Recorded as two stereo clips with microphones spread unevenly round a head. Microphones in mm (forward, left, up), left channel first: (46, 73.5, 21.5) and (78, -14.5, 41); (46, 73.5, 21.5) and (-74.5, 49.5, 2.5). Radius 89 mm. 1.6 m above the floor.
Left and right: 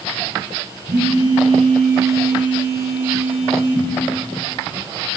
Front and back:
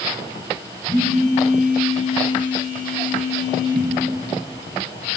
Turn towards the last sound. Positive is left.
turn(degrees=-70)